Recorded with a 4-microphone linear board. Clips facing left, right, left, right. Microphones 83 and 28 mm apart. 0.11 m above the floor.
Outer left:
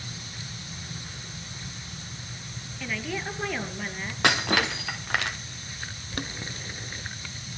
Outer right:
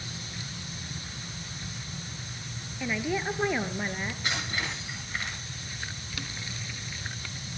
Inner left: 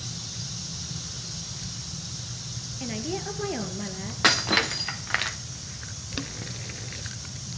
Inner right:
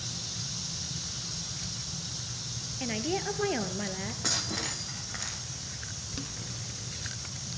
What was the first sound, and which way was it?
A woman speaking, 15° right (ahead or behind).